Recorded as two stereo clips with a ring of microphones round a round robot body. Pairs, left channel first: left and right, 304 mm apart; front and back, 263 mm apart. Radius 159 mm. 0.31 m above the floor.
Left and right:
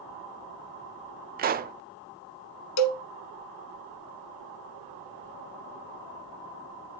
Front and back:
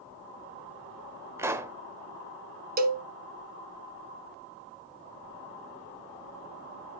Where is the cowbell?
125° left, 1.1 m.